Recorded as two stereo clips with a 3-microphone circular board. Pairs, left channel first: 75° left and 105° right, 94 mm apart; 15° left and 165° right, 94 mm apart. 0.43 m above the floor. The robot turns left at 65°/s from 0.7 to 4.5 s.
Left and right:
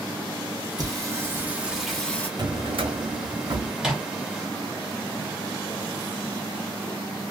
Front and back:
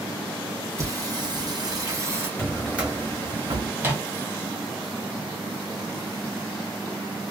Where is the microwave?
170° right, 0.7 m; by 4.1 s 170° left, 0.7 m.